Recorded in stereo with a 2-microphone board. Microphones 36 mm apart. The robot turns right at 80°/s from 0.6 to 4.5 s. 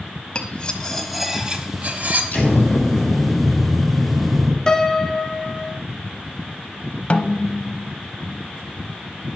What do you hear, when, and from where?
0.3 s cutlery clinking: 140° left, 1.0 m; by 2.2 s 90° right, 1.0 m
2.3 s an explosion: 50° left, 2 m; by 4.6 s 135° right, 2 m
4.7 s a piano: 15° left (ahead or behind), 0.5 m
7.1 s a snare drum: 40° left (ahead or behind), 0.7 m